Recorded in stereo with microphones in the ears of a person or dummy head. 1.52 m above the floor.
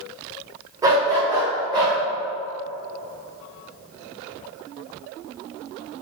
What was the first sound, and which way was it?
A dog barking, 15° right (ahead or behind).